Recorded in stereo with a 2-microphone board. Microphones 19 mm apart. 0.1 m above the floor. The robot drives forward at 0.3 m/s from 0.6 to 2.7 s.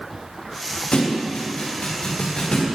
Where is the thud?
65° left (ahead or behind), 6 m; by 2.7 s 60° left (ahead or behind), 6.5 m.